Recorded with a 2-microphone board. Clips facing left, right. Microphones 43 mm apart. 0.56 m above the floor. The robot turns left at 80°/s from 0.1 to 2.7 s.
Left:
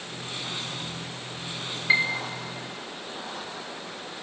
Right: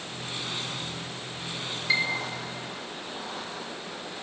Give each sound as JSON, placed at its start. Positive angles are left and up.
{"t": 1.9, "sound": "a piano", "side_deg": 30, "distance_m": 0.7}